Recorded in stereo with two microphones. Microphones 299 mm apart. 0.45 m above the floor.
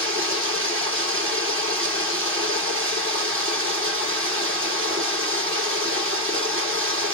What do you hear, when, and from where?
0.0 s running water: 40° right (ahead or behind), 2.0 m